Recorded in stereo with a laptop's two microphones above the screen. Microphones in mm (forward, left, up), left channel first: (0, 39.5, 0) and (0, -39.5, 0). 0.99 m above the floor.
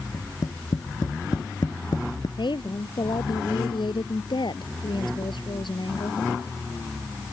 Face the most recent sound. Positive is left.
turn(degrees=80)